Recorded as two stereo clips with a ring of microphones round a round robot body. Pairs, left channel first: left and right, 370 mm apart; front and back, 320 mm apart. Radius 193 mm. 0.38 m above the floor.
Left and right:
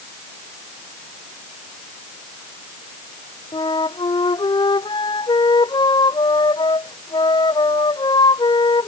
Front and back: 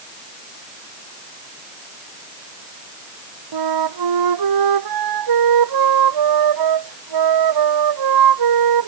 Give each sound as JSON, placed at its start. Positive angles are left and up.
{"t": 3.5, "sound": "a flute", "azimuth_deg": 170}